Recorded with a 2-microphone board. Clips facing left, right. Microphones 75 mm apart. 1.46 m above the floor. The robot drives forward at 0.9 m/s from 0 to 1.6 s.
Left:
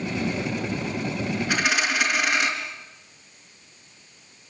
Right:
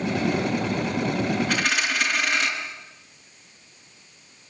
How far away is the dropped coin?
About 5 m.